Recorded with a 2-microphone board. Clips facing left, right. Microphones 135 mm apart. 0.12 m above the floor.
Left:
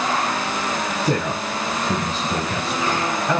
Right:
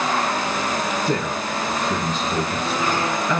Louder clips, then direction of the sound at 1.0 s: Left 1 dB; 75° left (ahead or behind).